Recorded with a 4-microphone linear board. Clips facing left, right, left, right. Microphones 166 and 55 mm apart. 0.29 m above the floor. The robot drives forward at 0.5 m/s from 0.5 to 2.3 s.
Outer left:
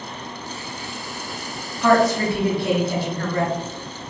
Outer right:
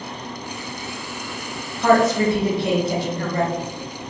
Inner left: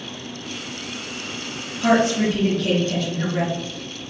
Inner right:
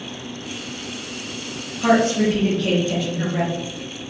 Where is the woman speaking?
20° right (ahead or behind), 1.3 m.